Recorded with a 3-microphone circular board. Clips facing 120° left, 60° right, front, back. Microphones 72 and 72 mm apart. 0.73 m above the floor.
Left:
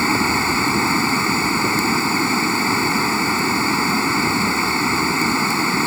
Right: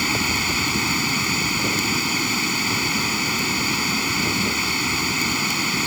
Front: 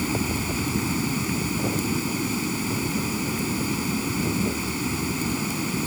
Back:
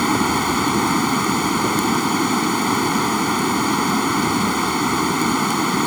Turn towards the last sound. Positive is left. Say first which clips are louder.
# left 6 dB, back 9 dB
turn(degrees=175)